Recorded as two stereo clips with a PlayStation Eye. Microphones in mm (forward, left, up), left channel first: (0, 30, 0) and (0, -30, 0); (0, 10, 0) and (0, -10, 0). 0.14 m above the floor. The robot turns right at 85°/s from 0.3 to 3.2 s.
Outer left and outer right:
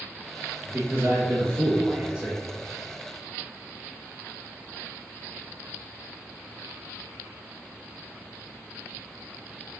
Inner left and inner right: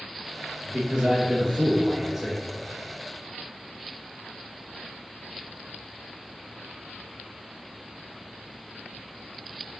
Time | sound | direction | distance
0.6 | a man speaking | 155° right | 2 m